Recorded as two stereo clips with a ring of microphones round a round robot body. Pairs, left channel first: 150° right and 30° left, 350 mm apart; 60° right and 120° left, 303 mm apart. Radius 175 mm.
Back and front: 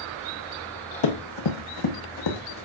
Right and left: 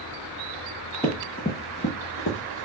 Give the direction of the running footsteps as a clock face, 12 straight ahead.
5 o'clock.